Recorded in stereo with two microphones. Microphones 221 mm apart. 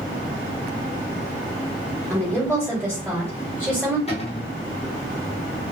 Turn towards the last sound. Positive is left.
turn(degrees=30)  # may be behind; listen again after turning